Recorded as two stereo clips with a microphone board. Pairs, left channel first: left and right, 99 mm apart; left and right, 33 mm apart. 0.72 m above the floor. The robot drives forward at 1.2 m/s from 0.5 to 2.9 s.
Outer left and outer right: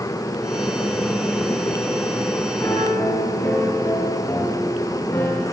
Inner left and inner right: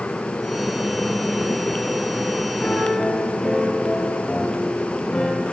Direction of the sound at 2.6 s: 25° left (ahead or behind).